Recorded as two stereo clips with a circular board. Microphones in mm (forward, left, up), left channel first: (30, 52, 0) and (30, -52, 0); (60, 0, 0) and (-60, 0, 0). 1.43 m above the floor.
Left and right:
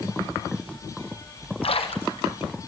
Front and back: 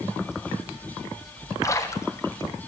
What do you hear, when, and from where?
1.6 s a splash: 65° left, 1.0 m